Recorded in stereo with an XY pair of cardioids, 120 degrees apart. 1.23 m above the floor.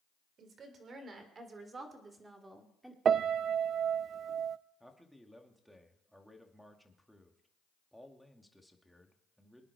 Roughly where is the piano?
Ahead right.